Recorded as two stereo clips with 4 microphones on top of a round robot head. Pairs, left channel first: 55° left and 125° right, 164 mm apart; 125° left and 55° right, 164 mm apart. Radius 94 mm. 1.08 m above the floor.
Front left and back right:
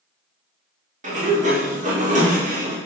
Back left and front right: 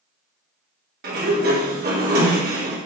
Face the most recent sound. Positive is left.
turn(degrees=-80)